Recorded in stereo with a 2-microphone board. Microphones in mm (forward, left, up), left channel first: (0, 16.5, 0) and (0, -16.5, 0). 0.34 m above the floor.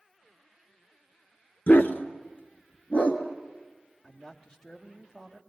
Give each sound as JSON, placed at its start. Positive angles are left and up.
{"t": 1.7, "sound": "a dog barking", "side_deg": 85, "distance_m": 1.5}
{"t": 4.0, "sound": "a man speaking", "side_deg": 20, "distance_m": 1.6}